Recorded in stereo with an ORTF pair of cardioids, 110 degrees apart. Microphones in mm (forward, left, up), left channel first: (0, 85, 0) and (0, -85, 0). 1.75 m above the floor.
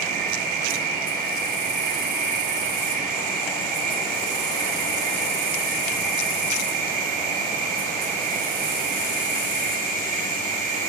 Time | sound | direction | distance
0.0 | an insect | 65° right | 6.5 m